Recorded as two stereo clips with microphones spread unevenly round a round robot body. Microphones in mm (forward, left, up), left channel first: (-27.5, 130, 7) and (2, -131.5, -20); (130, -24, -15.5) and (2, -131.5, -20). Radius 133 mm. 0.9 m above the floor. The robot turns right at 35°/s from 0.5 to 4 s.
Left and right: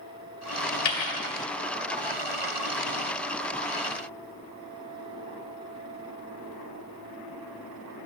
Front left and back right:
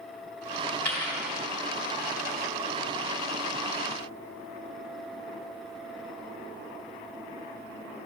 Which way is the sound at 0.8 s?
125° left.